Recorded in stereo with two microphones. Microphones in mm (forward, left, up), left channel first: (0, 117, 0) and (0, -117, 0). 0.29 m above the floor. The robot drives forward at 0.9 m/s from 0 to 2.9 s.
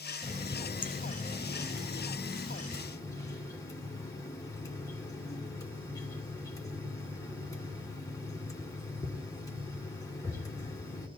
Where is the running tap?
30° left (ahead or behind), 1.1 m; by 11.1 s 15° left (ahead or behind), 2 m.